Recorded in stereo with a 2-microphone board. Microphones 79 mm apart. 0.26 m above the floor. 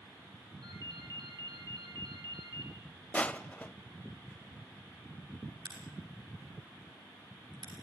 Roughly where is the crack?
Right.